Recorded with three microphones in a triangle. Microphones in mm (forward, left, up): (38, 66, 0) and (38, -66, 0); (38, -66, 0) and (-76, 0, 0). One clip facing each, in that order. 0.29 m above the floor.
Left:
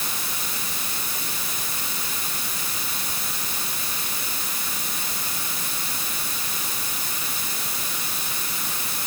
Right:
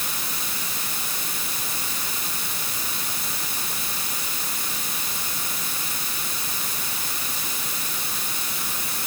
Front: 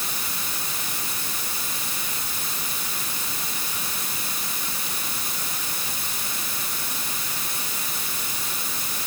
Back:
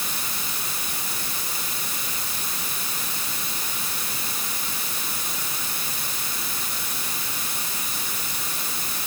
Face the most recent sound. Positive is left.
No sound to turn to.